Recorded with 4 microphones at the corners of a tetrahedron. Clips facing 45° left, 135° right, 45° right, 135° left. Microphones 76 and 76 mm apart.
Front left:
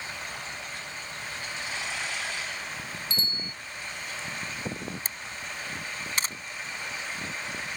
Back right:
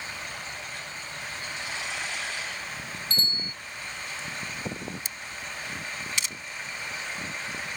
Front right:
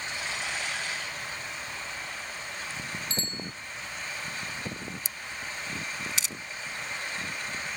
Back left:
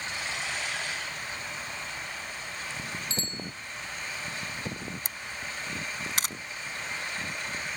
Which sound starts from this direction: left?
A camera shutter, at 5.0 s.